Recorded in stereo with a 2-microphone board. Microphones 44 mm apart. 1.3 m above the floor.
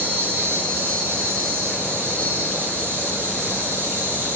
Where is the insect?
60° right (ahead or behind), 6 m.